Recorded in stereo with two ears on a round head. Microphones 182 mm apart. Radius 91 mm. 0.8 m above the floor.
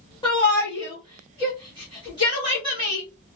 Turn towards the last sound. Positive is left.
turn(degrees=25)  # may be behind; listen again after turning